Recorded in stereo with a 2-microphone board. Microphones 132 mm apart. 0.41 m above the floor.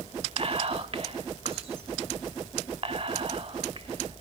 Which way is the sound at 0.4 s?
45° right (ahead or behind).